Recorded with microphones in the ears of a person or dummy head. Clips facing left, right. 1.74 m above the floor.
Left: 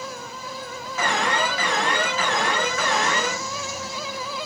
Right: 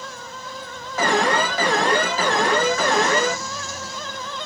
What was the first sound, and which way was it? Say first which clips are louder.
An alarm: right 5 dB; 35° right (ahead or behind).